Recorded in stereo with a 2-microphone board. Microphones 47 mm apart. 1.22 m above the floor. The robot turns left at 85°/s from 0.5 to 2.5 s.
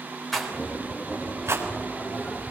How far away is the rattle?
About 4 m.